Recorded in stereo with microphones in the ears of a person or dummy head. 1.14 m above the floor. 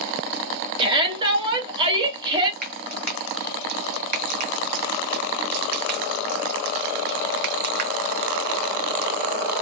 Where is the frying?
50° right (ahead or behind), 0.7 m.